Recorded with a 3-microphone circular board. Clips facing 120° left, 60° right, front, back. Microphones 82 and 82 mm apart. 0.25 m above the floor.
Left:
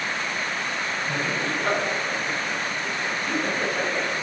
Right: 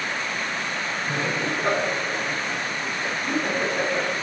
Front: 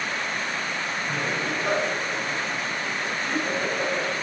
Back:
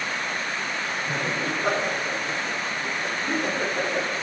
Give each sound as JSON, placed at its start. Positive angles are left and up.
{"t": 1.1, "sound": "laughter", "azimuth_deg": -125, "distance_m": 6.0}